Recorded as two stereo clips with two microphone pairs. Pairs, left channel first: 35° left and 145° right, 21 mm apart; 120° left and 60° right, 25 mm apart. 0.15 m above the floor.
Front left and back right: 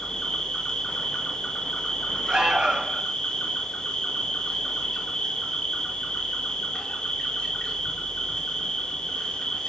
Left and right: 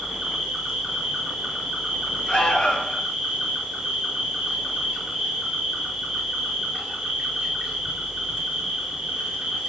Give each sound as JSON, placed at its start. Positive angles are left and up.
{"t": 0.0, "sound": "an insect", "azimuth_deg": -5, "distance_m": 7.0}
{"t": 2.3, "sound": "an alarm", "azimuth_deg": 180, "distance_m": 4.5}